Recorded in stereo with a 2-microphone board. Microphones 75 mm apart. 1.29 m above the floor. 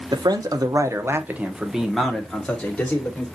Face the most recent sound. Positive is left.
turn(degrees=25)  # may be behind; listen again after turning